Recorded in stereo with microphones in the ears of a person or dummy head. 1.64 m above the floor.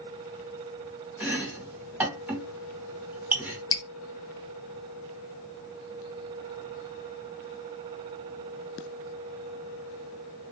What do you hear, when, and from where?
1.2 s chopping: 15° right (ahead or behind), 2.5 m
3.7 s dripping: 20° left (ahead or behind), 0.5 m